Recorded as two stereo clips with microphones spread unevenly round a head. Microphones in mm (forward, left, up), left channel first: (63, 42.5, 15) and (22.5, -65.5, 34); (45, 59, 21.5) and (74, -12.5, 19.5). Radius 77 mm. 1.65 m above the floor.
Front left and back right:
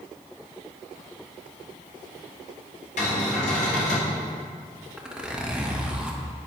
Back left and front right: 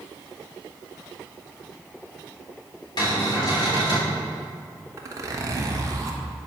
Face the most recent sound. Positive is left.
turn(degrees=-40)